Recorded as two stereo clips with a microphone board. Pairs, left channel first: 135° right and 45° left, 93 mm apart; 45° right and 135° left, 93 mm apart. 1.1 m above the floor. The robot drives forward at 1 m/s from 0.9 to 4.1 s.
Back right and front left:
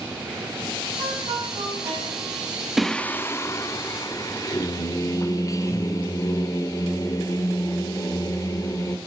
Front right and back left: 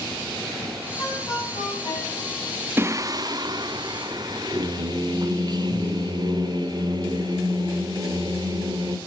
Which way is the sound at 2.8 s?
130° left.